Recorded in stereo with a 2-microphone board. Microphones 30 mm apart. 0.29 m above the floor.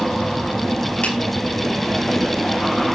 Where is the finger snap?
50° left (ahead or behind), 5.5 m.